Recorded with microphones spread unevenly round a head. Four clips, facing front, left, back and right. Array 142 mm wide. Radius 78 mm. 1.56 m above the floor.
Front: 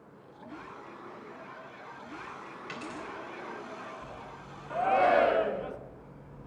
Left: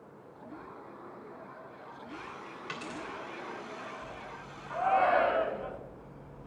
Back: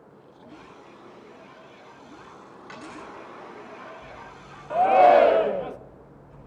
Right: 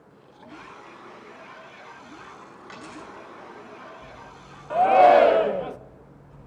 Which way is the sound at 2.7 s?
100° left.